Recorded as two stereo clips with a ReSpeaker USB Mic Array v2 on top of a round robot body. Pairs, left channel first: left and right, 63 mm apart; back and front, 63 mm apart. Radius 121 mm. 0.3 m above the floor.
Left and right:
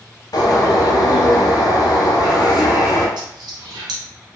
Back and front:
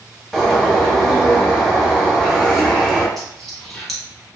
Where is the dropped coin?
95° right, 0.5 m.